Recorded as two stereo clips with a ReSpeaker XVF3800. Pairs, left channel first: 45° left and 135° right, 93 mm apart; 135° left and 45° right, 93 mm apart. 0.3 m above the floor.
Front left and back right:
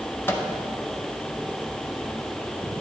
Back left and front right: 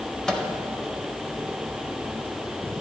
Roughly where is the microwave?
Ahead left.